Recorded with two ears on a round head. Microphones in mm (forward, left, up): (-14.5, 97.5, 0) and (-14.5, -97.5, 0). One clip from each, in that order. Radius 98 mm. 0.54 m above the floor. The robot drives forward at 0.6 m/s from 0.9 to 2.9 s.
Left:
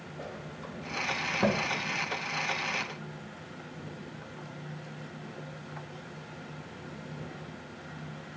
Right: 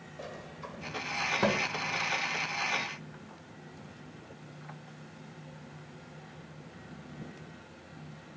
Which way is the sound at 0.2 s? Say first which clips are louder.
Even; 25° right (ahead or behind).